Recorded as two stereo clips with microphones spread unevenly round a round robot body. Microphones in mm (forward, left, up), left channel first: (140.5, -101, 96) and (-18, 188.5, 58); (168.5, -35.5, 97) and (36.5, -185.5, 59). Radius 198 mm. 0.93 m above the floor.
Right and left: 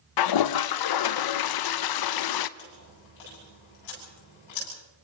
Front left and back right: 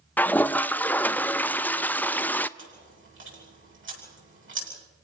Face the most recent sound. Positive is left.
turn(degrees=-105)